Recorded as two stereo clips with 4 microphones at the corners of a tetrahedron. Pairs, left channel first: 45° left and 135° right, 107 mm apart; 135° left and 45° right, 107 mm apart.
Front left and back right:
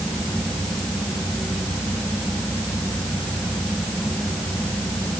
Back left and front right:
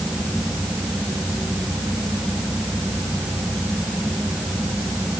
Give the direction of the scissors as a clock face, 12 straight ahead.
I don't hear scissors.